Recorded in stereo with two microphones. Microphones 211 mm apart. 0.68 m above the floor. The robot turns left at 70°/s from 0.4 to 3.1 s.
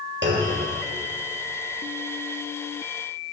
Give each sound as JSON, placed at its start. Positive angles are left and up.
{"t": 0.2, "sound": "a clunk", "side_deg": -60, "distance_m": 1.3}